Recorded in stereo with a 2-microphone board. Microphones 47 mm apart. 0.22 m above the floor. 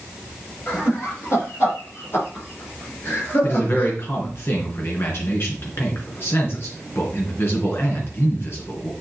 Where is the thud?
I don't hear a thud.